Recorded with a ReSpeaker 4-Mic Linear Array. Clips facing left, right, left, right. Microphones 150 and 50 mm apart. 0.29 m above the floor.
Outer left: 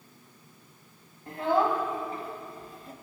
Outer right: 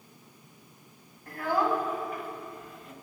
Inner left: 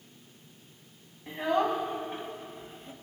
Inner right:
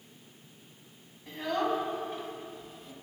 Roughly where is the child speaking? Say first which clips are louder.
Outer left 2 dB, inner left 3 dB; left.